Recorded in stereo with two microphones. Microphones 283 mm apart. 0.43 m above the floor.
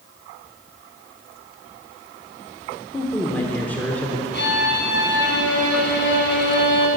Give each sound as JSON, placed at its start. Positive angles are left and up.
{"t": 2.9, "sound": "a man speaking", "side_deg": 5, "distance_m": 1.0}
{"t": 4.3, "sound": "a violin", "side_deg": 40, "distance_m": 1.7}